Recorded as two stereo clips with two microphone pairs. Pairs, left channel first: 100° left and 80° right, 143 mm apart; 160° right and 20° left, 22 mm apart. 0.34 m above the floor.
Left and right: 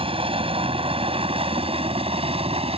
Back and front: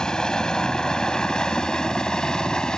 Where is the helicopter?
115° right.